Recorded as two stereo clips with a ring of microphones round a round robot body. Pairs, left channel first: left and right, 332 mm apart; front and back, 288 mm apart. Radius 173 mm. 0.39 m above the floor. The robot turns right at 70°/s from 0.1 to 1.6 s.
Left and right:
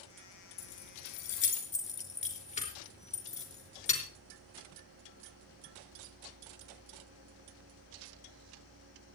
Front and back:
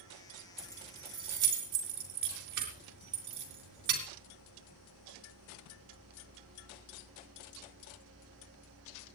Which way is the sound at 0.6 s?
90° left.